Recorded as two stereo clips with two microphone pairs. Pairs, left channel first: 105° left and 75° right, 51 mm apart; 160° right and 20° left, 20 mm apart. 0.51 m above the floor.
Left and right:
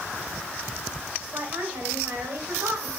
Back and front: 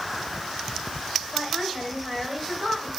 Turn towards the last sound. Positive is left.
turn(degrees=-40)